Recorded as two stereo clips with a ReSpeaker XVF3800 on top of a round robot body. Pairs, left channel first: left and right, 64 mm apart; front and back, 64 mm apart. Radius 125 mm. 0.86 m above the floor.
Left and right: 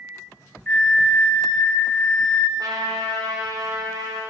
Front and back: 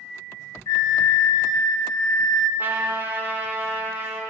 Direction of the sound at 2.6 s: 120° right.